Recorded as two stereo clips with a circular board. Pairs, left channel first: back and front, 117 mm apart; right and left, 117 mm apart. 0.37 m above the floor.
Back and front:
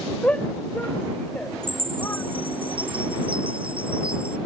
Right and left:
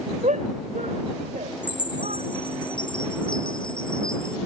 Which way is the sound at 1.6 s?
40° right.